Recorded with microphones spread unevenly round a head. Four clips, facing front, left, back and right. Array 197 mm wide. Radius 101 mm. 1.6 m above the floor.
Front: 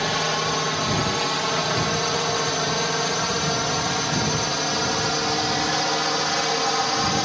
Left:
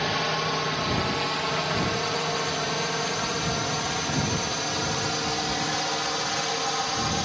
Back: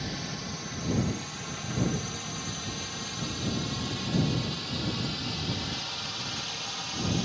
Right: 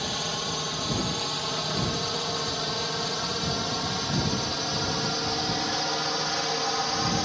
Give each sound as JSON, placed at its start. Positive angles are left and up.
{"t": 0.0, "sound": "a drone", "azimuth_deg": 15}